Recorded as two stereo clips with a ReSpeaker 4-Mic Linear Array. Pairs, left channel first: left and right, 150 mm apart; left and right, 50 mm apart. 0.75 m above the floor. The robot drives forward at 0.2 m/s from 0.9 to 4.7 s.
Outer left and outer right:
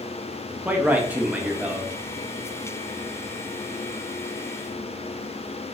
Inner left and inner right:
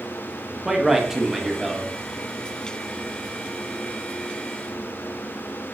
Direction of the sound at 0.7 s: 10° right (ahead or behind).